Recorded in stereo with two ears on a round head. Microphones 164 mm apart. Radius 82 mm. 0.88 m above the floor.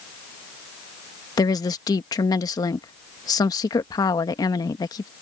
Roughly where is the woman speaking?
Left.